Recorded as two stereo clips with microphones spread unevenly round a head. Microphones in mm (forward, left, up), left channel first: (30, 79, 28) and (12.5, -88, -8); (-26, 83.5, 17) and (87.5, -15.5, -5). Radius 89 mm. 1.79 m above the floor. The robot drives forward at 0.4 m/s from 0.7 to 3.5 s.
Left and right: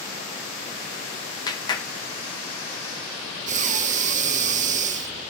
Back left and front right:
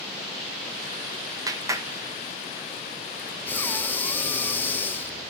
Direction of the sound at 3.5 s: 150° right.